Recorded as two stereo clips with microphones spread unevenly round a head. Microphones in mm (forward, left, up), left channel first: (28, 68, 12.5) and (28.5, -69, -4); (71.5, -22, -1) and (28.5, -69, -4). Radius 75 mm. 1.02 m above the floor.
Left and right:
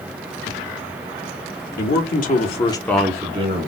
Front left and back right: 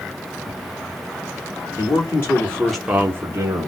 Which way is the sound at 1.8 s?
100° left.